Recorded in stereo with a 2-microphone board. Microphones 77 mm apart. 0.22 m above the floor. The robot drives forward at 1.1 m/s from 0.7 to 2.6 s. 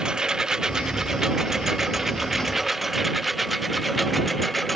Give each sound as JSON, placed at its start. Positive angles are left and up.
{"t": 0.0, "sound": "a lawn mower", "side_deg": -10}